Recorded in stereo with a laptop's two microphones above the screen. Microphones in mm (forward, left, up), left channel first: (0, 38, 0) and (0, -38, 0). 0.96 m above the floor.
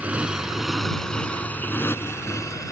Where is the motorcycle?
20° right (ahead or behind); by 2.7 s 50° left (ahead or behind).